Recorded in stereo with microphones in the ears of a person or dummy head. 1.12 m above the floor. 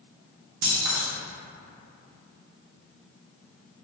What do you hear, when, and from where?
0.6 s keys jangling: 70° right (ahead or behind), 0.9 m